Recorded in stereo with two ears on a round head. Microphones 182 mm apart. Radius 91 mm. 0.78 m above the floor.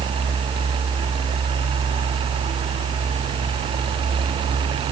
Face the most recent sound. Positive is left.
No sound to turn to.